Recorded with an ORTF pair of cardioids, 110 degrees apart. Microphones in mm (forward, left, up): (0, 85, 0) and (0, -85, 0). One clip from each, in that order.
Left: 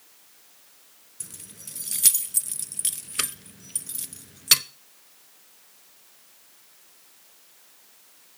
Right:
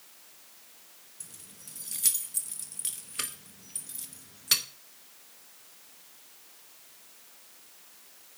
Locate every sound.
1.2 s keys jangling: 40° left, 0.7 m